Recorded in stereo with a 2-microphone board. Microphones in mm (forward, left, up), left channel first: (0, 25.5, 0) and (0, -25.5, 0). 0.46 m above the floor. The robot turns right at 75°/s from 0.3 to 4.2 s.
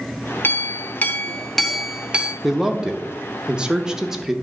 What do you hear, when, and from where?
0.4 s a clink: 85° left, 0.9 m; by 2.3 s 130° right, 0.9 m
2.4 s a man speaking: 5° right (ahead or behind), 0.7 m; by 4.3 s 10° right (ahead or behind), 0.7 m